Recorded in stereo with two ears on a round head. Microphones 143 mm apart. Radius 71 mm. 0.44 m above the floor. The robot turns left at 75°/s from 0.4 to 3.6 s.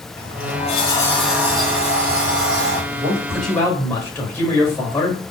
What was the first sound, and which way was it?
A sliding door, 65° left.